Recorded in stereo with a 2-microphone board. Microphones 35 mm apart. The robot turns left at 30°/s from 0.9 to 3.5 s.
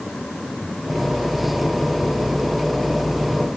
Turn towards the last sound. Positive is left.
No sound to turn to.